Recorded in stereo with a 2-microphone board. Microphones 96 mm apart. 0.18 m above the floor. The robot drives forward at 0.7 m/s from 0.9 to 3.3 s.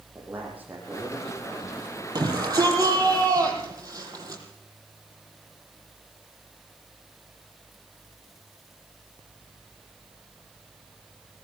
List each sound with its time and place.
0.1 s a man speaking: 15° right (ahead or behind), 8 m
2.1 s a shout: 45° right (ahead or behind), 6.5 m; by 4.4 s 40° right (ahead or behind), 7 m